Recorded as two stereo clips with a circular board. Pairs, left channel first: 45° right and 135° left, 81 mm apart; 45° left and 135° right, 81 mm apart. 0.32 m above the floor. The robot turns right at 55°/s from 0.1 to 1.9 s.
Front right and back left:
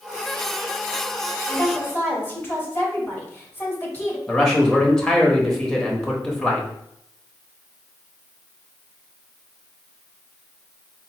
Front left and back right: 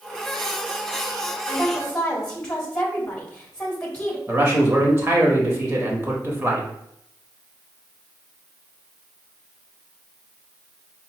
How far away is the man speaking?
About 0.9 m.